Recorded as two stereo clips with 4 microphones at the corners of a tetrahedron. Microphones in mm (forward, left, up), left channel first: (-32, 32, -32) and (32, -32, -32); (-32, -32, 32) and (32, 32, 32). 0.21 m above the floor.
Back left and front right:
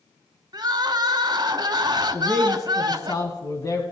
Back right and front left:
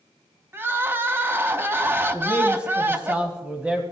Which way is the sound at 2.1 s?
115° left.